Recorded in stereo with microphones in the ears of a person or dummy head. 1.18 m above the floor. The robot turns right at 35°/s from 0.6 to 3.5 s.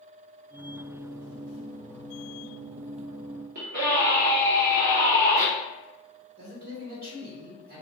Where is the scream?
40° right (ahead or behind), 0.8 m.